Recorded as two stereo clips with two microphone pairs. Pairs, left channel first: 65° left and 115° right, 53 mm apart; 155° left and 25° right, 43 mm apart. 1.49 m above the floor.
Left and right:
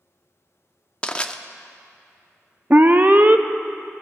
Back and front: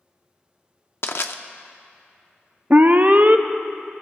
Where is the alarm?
65° right, 0.5 m.